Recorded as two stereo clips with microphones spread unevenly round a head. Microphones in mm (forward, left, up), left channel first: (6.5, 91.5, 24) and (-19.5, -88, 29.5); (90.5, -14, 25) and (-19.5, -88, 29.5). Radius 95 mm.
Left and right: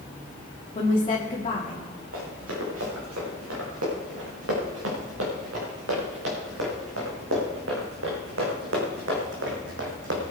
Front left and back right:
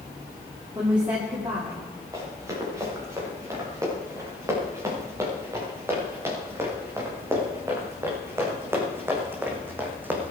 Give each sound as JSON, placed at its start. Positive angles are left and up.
{"t": 0.8, "sound": "a woman speaking", "azimuth_deg": 145, "distance_m": 2.5}
{"t": 2.1, "sound": "running footsteps", "azimuth_deg": -80, "distance_m": 8.5}